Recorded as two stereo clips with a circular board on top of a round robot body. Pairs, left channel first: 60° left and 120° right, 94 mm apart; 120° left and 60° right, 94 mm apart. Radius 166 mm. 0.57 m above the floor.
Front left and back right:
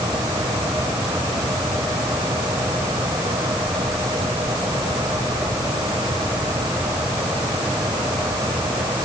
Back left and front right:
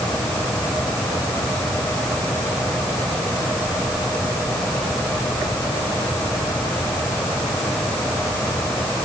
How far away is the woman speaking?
No woman speaking in this recording.